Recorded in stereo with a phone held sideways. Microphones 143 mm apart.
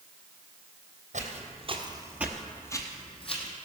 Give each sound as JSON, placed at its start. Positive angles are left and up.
{"t": 1.1, "sound": "footsteps", "side_deg": -60, "distance_m": 1.9}